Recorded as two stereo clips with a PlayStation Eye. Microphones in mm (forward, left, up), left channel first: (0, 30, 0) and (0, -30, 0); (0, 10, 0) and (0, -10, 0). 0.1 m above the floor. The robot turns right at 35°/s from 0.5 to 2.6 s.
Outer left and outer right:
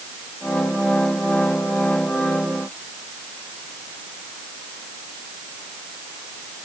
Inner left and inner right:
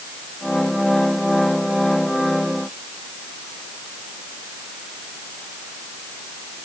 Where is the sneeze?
I don't hear a sneeze.